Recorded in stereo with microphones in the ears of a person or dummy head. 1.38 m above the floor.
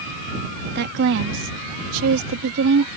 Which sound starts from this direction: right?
A woman speaking, at 0.8 s.